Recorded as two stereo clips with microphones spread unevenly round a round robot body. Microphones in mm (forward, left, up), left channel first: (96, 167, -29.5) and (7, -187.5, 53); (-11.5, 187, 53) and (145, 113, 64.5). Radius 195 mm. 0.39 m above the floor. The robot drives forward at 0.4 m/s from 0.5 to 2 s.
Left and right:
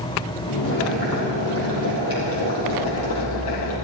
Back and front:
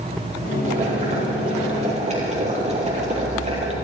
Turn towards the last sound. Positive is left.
turn(degrees=25)